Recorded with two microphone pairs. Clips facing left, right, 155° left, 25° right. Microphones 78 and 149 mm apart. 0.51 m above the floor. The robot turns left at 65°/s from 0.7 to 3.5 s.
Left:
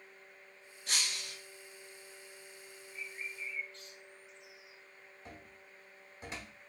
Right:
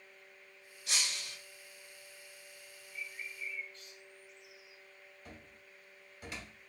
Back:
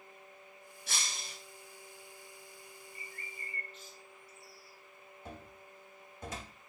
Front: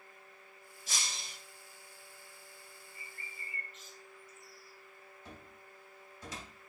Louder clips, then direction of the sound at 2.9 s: Even, back 2 dB; 130° left.